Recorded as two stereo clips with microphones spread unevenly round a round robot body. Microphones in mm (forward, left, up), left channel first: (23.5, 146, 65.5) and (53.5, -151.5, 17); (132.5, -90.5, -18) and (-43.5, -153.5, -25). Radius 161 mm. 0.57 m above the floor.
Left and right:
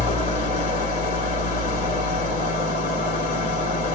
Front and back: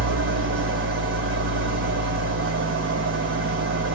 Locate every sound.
0.0 s an engine running: 165° left, 2 m